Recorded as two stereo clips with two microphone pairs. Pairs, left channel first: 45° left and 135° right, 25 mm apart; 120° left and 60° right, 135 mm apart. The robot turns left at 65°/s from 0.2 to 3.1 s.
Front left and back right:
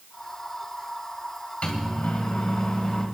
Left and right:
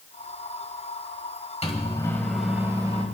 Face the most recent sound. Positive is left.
turn(degrees=-15)